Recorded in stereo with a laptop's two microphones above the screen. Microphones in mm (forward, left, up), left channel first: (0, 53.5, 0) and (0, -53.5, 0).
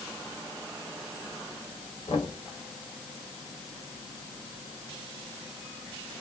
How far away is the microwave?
No microwave in this recording.